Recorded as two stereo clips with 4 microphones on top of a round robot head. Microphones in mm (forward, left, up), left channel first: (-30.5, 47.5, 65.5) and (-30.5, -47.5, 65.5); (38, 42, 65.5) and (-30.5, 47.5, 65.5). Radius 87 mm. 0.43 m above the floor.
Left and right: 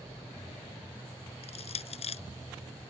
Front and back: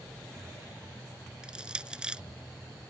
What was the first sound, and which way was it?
Crushing, 100° left.